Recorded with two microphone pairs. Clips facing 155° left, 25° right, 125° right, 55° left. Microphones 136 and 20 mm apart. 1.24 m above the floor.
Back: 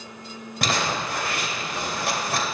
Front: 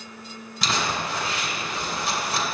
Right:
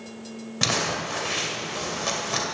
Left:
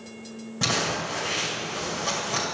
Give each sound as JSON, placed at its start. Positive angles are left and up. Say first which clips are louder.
{"t": 0.6, "sound": "crumpling", "louder": "back 1 dB, right 1 dB", "azimuth_deg": 180, "distance_m": 2.0}